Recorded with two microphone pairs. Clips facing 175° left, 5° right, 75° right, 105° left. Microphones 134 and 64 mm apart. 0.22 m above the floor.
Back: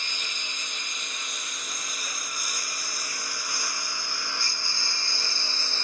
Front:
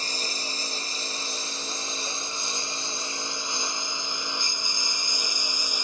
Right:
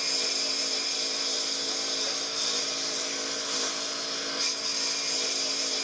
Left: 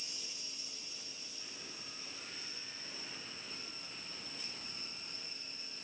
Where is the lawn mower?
55° right; by 5.8 s 80° right.